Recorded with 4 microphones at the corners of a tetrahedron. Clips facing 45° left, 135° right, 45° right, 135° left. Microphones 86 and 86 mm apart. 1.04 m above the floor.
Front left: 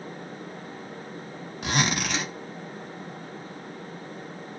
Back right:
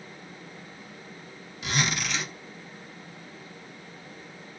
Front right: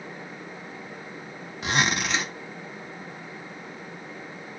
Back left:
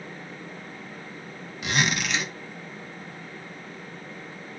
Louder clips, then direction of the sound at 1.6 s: Front left 3 dB, front right 1 dB; 10° left.